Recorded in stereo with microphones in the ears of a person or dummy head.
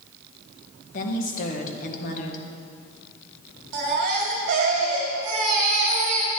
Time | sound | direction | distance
0.9 | a woman speaking | 50° left (ahead or behind) | 1.6 m
3.7 | a baby crying | 45° right (ahead or behind) | 2 m